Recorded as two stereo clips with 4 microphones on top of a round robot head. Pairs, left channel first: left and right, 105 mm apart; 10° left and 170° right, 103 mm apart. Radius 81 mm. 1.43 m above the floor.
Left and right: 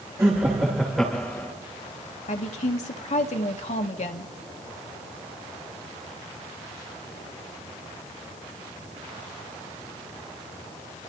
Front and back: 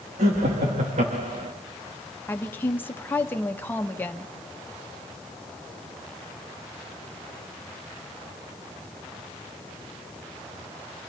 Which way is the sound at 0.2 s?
160° right.